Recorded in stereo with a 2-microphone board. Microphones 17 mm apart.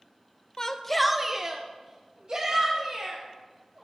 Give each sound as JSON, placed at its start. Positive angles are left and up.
{"t": 0.6, "sound": "a shout", "side_deg": 35, "distance_m": 0.6}